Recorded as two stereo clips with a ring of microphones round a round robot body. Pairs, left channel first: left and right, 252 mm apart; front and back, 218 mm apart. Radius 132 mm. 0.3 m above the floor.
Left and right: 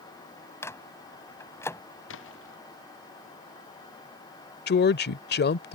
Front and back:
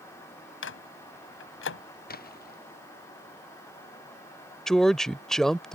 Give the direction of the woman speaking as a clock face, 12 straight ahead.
9 o'clock.